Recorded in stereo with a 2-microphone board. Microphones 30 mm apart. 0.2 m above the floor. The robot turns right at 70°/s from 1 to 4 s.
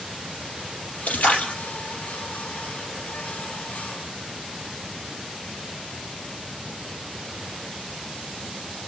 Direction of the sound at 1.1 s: 100° left.